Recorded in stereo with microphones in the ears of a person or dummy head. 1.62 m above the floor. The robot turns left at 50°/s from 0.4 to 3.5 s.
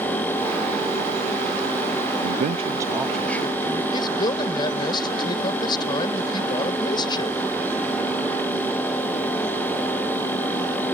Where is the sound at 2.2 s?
135° right; by 3.8 s 160° left.